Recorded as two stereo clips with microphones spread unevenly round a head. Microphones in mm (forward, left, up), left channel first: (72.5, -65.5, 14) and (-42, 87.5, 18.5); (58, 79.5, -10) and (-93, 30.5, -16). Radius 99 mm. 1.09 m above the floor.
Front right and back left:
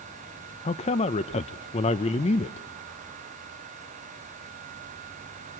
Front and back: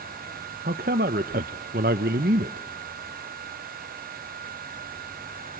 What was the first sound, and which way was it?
A man speaking, 115° right.